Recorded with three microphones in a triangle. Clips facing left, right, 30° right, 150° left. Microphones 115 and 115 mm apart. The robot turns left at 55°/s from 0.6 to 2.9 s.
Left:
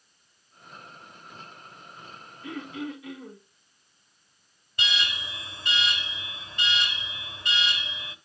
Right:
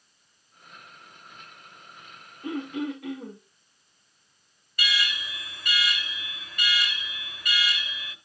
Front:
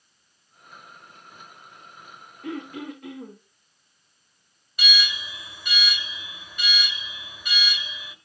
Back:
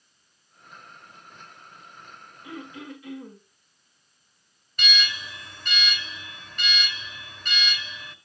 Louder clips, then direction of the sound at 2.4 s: Right 5 dB, front 6 dB; 35° right.